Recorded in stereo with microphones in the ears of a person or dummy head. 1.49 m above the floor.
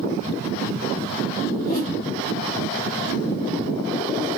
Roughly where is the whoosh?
Left.